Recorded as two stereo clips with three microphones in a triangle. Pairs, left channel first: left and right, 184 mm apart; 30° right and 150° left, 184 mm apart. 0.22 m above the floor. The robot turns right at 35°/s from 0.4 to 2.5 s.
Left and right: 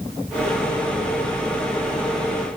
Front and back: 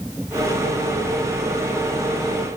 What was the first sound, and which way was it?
Only background noise.